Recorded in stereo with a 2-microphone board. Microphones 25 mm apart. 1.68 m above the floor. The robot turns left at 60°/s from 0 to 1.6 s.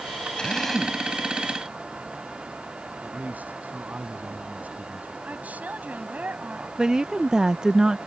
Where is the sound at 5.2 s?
75° right (ahead or behind).